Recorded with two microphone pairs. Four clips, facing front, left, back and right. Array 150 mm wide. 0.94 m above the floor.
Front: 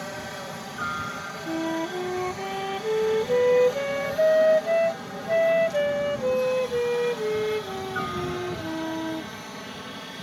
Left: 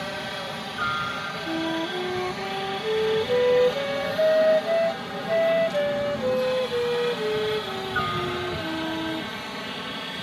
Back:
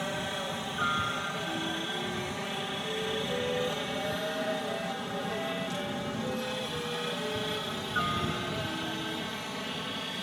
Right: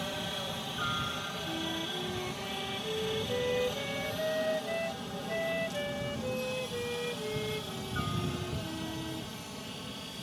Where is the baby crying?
I don't hear a baby crying.